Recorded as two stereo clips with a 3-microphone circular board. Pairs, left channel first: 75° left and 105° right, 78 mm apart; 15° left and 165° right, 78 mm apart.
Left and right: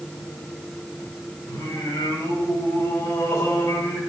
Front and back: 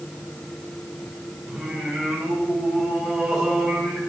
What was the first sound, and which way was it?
Singing, 110° left.